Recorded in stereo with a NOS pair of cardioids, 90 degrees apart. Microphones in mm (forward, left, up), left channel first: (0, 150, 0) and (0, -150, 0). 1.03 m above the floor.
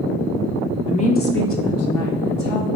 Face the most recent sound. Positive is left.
turn(degrees=70)